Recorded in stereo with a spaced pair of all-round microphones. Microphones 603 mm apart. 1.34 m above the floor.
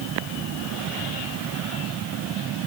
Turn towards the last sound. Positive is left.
No sound to turn to.